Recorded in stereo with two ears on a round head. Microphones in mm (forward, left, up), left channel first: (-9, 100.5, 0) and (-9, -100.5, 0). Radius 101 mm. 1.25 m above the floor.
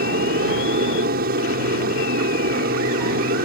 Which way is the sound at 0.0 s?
40° right (ahead or behind).